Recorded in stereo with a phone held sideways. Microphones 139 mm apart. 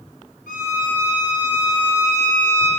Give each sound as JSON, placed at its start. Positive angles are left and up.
{"t": 0.5, "sound": "a violin", "side_deg": 85, "distance_m": 5.5}